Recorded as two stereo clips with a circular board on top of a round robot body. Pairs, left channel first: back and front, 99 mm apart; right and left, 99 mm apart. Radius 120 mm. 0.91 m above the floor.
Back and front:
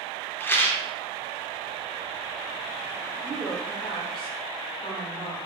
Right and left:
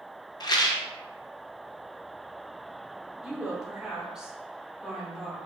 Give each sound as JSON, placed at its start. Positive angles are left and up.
{"t": 0.4, "sound": "a rattle", "azimuth_deg": -120, "distance_m": 0.7}
{"t": 3.2, "sound": "a woman speaking", "azimuth_deg": 170, "distance_m": 1.5}